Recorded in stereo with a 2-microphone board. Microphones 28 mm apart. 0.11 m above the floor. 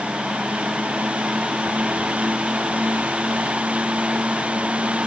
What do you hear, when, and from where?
Only background noise.